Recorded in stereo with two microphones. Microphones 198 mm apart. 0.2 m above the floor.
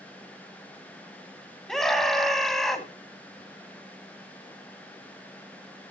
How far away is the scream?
About 1.6 m.